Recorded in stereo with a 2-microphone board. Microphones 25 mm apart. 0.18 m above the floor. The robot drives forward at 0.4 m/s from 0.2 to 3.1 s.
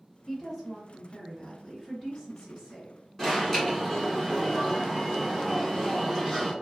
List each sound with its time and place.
0.3 s a woman speaking: 20° left (ahead or behind), 1.6 m; by 2.9 s 15° left (ahead or behind), 1.9 m
3.2 s an alarm: 10° left (ahead or behind), 1.4 m